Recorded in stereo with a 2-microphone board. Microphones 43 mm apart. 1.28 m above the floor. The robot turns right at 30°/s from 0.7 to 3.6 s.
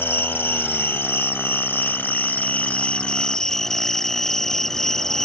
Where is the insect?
80° left; by 5.3 s 165° left.